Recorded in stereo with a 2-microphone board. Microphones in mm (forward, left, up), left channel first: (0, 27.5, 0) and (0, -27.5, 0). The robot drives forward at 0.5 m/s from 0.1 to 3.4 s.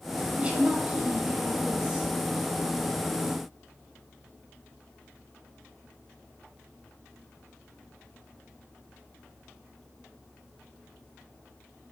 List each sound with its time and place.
0.4 s a woman speaking: 20° right (ahead or behind), 1.1 m; by 2.1 s 15° right (ahead or behind), 1.5 m